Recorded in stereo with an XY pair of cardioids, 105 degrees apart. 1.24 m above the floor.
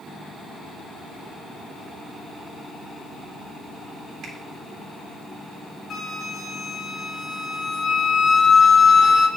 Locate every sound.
4.2 s a finger snap: 65° right, 2.5 m
5.9 s a flute: 45° left, 1.2 m